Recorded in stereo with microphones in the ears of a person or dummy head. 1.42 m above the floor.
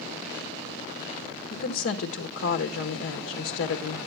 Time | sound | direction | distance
1.5 | a woman speaking | 55° left (ahead or behind) | 1.2 m